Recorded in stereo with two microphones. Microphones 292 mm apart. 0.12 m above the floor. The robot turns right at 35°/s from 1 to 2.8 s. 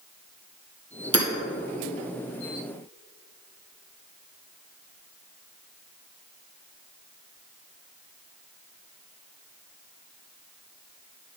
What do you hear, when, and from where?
1.1 s hammering: 50° right (ahead or behind), 1.4 m